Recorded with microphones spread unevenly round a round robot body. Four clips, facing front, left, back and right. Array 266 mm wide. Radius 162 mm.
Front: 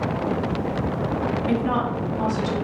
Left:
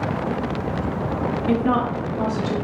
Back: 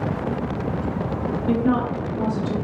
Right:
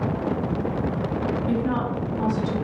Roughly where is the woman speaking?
Ahead left.